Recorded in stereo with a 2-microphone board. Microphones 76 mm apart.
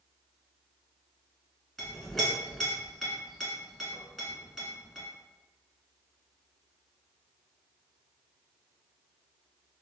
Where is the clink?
Centre (ahead or behind), 1.1 m.